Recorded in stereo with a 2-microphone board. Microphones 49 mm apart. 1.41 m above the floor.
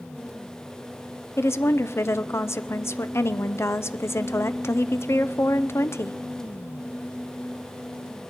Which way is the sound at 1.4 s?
60° left (ahead or behind).